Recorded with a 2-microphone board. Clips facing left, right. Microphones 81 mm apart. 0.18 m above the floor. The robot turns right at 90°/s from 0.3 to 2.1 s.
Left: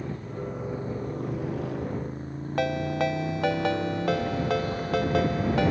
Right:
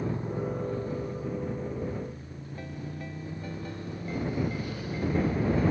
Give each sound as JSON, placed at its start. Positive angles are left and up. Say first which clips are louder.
{"t": 0.0, "sound": "a motorcycle", "louder": "right 3 dB", "azimuth_deg": -20}
{"t": 2.6, "sound": "a ringtone", "louder": "left 15 dB", "side_deg": 85}